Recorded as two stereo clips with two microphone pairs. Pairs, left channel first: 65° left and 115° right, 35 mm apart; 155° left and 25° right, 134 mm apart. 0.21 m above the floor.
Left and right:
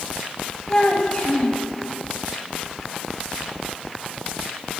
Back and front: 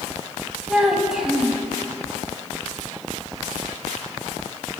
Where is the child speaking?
65° left, 0.7 m.